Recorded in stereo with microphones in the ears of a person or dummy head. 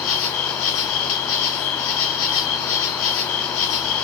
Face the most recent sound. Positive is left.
turn(degrees=75)  # may be behind; listen again after turning